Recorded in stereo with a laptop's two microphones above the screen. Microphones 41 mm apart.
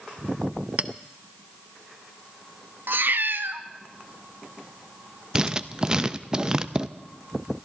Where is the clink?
35° right (ahead or behind), 0.6 m.